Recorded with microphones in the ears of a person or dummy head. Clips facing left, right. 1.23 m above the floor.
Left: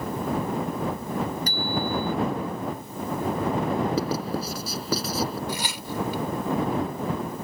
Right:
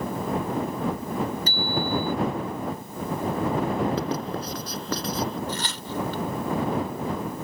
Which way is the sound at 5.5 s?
10° left (ahead or behind).